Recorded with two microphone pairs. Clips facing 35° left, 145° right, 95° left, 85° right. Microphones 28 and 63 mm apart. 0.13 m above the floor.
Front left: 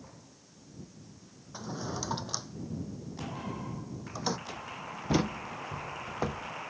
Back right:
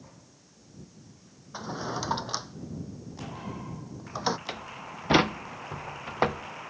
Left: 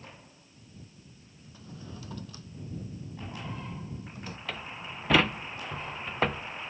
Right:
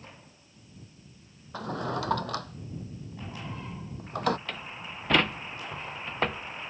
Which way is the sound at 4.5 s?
175° right.